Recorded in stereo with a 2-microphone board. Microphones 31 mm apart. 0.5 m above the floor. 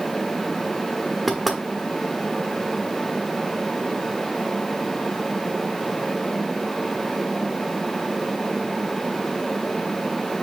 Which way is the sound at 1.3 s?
Centre (ahead or behind).